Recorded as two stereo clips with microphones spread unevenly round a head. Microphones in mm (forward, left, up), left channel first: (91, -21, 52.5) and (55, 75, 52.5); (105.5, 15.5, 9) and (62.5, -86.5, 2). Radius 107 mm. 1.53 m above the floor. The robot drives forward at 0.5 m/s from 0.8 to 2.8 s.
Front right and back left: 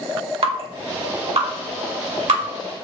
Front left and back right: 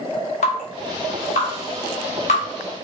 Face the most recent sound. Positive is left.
turn(degrees=115)